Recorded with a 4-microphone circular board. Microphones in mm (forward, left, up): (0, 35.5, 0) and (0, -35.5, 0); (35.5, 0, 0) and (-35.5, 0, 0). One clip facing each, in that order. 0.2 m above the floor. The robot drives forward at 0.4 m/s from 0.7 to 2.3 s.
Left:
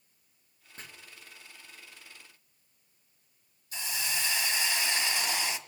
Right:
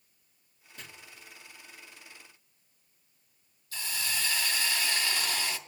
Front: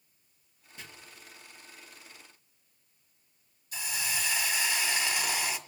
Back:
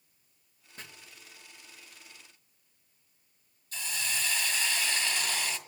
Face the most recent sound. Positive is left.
turn(degrees=55)